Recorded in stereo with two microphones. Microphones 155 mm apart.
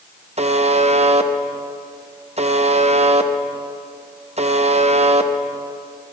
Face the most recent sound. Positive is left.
turn(degrees=-45)  # may be behind; listen again after turning